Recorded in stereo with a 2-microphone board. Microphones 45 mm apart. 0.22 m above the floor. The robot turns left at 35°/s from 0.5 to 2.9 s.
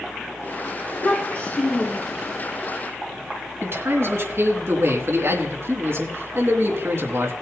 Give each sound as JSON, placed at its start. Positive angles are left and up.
{"t": 0.8, "sound": "a child speaking", "azimuth_deg": 55, "distance_m": 6.0}
{"t": 3.6, "sound": "a man speaking", "side_deg": -60, "distance_m": 2.5}